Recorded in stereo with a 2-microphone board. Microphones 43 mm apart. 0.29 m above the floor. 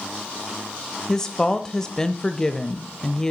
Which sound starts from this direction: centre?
A woman speaking, at 1.1 s.